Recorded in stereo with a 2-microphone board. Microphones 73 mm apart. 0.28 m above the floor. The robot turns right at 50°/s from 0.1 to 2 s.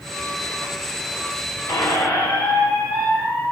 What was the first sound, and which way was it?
A squeak, 55° left (ahead or behind).